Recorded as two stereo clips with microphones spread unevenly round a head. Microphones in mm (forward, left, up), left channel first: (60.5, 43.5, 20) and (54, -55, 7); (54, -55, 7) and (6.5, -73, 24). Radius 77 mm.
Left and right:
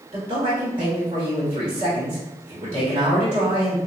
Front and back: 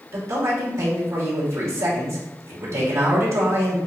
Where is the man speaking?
145° right, 1.5 m.